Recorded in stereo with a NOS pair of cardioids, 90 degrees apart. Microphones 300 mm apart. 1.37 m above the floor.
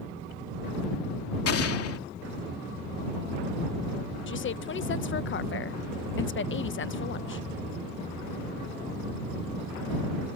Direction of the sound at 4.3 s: 40° left.